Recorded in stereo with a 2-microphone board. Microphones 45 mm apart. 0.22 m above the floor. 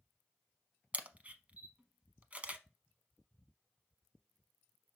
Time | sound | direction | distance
0.9 | a camera shutter | 30° right (ahead or behind) | 0.8 m